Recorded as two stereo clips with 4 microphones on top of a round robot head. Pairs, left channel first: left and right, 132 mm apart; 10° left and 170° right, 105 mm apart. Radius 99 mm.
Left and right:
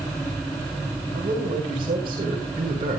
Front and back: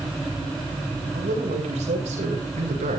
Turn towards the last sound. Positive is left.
turn(degrees=-150)